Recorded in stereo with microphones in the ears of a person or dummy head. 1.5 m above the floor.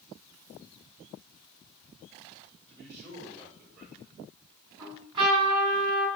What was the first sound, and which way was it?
A man speaking, 50° right (ahead or behind).